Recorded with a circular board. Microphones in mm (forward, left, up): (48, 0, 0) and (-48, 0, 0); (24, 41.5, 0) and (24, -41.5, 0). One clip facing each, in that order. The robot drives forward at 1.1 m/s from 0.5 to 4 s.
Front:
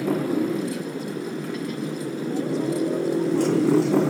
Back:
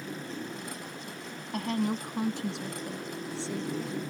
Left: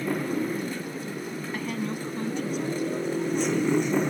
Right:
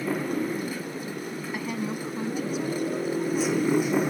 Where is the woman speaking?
170° right; by 4.0 s 175° right.